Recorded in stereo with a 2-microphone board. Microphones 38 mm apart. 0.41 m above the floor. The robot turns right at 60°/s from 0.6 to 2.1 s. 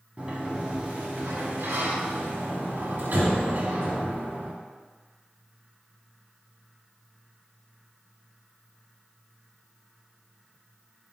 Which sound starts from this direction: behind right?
A sliding door, at 0.2 s.